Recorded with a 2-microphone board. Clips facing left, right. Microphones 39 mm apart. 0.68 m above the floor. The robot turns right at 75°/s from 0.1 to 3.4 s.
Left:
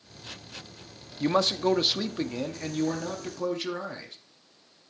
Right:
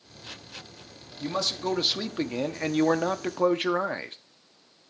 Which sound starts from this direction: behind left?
A man speaking, at 1.2 s.